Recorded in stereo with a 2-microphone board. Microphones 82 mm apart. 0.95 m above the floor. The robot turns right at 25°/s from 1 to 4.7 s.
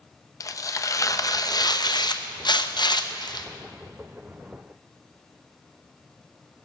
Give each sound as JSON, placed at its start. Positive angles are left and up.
{"t": 0.4, "sound": "tearing paper", "azimuth_deg": 50, "distance_m": 0.7}